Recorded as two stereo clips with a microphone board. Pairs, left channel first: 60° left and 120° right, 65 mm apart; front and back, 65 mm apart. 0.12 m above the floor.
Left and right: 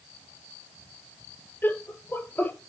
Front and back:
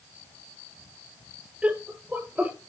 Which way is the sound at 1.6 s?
115° left.